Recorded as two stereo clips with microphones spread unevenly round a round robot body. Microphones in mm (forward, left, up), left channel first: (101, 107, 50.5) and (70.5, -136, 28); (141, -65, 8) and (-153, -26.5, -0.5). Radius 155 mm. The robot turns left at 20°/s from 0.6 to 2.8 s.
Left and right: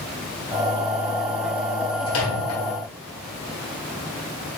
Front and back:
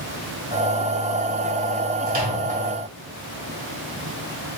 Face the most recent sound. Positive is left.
turn(degrees=100)